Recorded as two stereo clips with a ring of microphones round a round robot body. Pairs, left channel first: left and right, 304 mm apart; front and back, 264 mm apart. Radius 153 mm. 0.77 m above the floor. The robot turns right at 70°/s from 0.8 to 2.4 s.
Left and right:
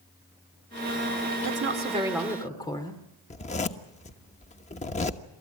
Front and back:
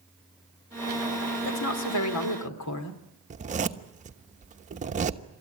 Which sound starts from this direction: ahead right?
A woman speaking, at 1.4 s.